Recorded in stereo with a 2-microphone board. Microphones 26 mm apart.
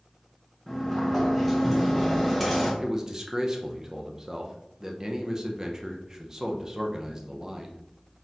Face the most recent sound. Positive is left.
turn(degrees=-20)  # may be behind; listen again after turning